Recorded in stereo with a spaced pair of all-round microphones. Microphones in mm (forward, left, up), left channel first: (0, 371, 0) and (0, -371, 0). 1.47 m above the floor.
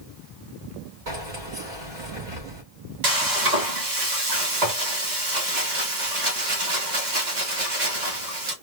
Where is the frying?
70° right (ahead or behind), 1.7 m.